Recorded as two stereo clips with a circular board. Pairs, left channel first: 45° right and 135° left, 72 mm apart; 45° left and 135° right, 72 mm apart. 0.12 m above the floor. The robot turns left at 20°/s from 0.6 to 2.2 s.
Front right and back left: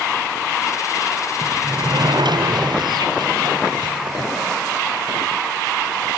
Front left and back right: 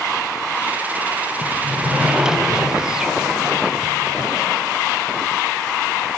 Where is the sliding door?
160° left; by 4.3 s 145° left.